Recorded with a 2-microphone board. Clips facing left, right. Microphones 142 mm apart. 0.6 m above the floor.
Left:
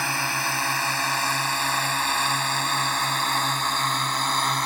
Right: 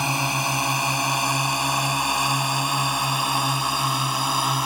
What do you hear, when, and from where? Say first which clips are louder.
0.0 s a drone: right 3 dB; 20° right (ahead or behind); by 4.7 s 10° right (ahead or behind)